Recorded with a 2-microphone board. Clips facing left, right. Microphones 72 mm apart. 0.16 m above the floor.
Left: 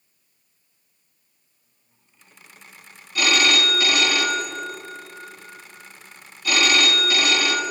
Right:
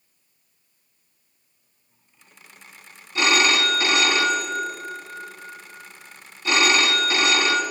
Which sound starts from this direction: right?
A phone ringing, at 3.1 s.